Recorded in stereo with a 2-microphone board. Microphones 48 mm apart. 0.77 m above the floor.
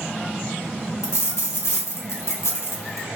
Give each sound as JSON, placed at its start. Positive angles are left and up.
{"t": 1.0, "sound": "a dropped coin", "side_deg": 80, "distance_m": 1.1}